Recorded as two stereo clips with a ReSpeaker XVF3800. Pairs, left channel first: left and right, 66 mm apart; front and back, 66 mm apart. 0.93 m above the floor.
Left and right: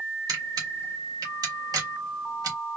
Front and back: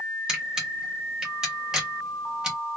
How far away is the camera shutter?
About 1.3 m.